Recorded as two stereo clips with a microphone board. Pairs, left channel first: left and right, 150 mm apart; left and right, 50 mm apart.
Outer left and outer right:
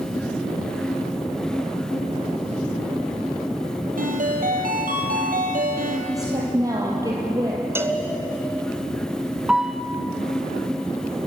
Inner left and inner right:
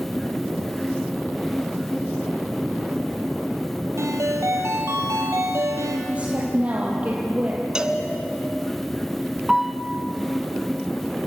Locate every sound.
4.0 s a ringtone: 75° right (ahead or behind), 3.5 m
6.1 s a woman speaking: 25° right (ahead or behind), 4 m
7.8 s a cowbell: 15° right (ahead or behind), 1.7 m
9.5 s a piano: 5° right (ahead or behind), 1.0 m